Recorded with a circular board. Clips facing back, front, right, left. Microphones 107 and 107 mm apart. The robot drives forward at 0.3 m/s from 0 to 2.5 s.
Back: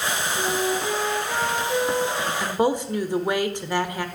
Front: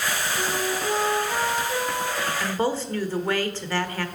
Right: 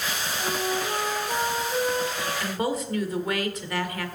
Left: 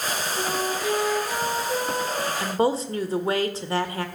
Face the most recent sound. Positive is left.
turn(degrees=120)